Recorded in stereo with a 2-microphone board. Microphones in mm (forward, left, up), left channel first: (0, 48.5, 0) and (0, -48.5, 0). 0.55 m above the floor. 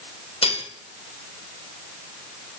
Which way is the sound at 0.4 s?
70° left (ahead or behind).